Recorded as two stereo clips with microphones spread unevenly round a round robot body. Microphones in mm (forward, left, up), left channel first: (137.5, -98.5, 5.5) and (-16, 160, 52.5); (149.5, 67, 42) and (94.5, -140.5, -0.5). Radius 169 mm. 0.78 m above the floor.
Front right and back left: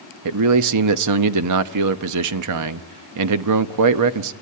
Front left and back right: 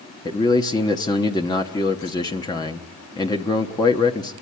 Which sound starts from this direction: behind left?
A man speaking, at 0.2 s.